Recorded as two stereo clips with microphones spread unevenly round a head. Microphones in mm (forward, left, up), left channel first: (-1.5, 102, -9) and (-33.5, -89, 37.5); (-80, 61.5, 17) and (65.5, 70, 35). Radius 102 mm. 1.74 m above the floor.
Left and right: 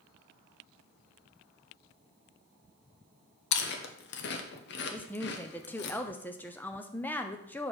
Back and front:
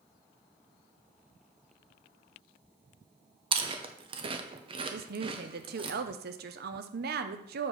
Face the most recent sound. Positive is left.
turn(degrees=-5)